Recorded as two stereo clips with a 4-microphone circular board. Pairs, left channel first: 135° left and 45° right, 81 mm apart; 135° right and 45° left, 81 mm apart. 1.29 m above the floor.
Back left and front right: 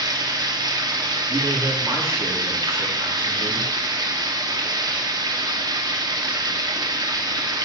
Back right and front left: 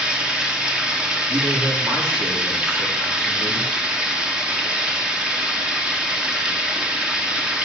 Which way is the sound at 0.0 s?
35° right.